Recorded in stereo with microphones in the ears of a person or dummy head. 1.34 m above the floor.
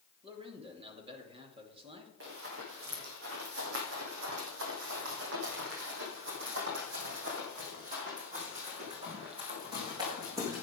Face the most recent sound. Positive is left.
turn(degrees=-15)  # may be behind; listen again after turning